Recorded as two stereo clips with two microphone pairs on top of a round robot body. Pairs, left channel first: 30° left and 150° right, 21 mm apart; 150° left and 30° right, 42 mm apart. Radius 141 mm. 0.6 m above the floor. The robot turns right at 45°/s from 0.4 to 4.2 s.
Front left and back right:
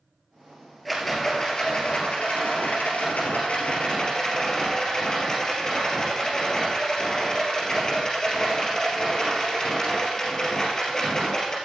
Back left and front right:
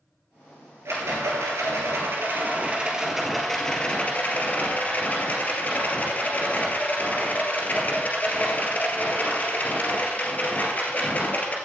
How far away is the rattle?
About 2.5 m.